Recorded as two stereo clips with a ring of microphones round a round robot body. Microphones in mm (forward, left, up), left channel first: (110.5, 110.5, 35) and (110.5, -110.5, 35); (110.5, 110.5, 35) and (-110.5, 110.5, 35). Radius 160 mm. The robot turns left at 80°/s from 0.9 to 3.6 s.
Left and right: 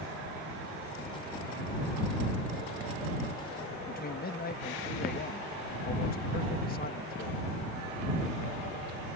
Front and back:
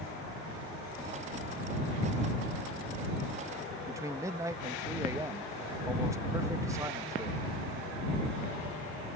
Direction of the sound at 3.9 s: 110° left.